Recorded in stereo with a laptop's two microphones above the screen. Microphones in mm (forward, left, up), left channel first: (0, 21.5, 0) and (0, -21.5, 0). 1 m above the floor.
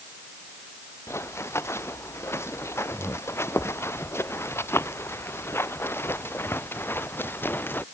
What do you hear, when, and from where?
1.1 s running footsteps: 85° left; by 7.8 s 55° left (ahead or behind)